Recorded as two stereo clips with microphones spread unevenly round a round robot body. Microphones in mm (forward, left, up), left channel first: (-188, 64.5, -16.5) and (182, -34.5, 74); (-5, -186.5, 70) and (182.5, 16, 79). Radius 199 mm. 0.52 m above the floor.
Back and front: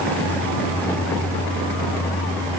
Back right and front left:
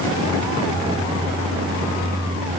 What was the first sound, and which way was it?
Only background noise.